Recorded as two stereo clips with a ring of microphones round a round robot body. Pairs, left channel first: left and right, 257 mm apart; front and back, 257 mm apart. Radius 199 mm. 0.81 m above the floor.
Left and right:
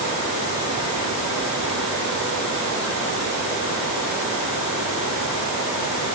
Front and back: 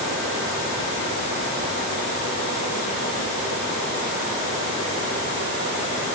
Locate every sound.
Only background noise.